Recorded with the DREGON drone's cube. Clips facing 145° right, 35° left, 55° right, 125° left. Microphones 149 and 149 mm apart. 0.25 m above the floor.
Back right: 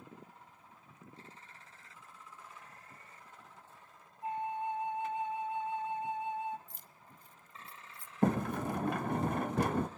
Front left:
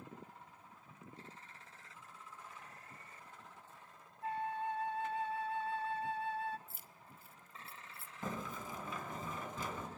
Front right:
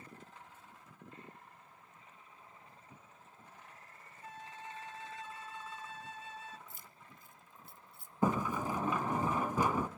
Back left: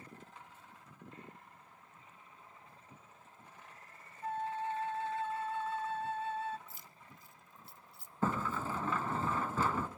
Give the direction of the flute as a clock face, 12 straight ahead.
7 o'clock.